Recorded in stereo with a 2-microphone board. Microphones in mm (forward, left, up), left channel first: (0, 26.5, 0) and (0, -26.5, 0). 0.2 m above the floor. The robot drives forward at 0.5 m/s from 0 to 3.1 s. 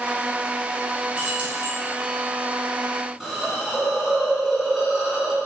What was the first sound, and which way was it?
Keys jangling, 20° right (ahead or behind).